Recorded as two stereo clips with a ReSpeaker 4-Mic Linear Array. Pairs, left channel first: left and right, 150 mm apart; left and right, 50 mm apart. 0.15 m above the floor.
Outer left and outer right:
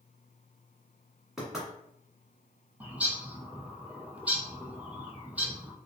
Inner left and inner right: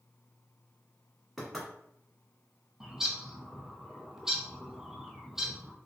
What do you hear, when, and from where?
1.4 s knocking: 5° right (ahead or behind), 1.6 m
2.8 s a bird: 10° right (ahead or behind), 0.7 m